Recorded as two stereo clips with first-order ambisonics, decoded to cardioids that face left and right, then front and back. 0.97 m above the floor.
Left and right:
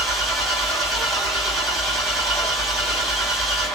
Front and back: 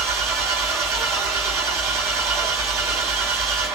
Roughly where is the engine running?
Behind right.